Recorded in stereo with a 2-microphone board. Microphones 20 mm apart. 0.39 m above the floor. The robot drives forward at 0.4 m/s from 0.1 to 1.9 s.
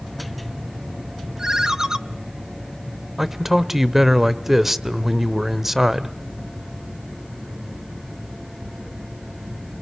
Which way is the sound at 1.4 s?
25° right (ahead or behind).